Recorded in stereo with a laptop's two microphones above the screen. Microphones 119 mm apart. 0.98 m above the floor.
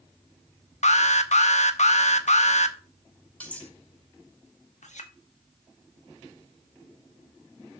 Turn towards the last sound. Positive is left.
turn(degrees=80)